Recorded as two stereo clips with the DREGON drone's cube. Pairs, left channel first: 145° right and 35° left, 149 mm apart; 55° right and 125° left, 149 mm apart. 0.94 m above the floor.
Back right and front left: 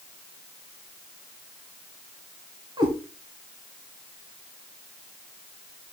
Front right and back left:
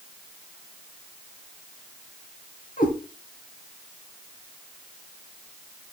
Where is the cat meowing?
30° right, 3.5 m.